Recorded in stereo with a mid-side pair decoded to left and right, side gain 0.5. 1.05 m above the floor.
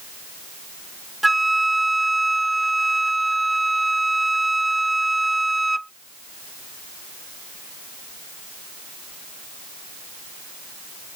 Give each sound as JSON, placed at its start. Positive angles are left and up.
{"t": 1.2, "sound": "a flute", "azimuth_deg": -10}